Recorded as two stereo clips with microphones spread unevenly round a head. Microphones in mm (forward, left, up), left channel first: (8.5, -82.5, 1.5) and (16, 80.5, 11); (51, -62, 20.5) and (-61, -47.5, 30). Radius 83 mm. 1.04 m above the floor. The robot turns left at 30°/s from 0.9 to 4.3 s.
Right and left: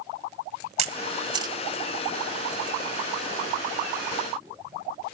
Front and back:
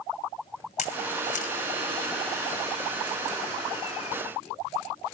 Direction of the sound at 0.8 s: 40° left.